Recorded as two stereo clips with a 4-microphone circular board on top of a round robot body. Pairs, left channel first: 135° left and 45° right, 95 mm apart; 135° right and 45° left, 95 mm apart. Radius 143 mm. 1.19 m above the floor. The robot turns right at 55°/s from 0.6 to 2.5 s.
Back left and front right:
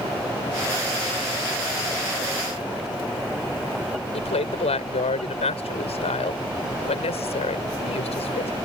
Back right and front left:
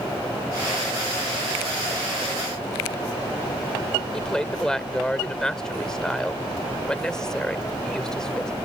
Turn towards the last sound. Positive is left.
turn(degrees=140)